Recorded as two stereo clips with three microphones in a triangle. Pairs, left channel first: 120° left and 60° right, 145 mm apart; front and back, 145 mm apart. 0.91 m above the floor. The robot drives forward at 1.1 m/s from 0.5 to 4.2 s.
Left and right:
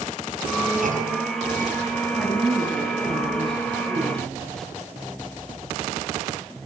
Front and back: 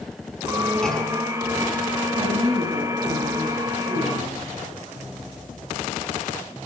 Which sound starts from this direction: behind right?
A woman speaking, at 2.1 s.